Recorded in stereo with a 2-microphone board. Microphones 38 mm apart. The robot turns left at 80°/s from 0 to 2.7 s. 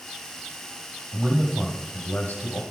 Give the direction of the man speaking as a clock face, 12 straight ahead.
5 o'clock.